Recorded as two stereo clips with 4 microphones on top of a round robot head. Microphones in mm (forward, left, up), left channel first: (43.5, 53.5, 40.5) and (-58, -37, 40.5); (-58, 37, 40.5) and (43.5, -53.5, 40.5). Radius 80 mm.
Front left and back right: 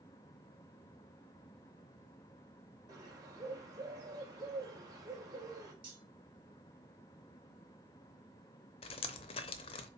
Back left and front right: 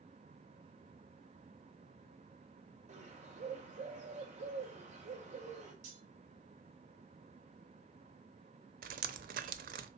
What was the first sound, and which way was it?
A bird, 75° right.